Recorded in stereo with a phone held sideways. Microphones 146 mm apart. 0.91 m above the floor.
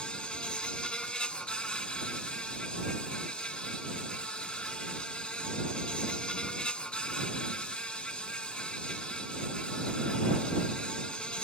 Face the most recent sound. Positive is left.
turn(degrees=5)  # may be behind; listen again after turning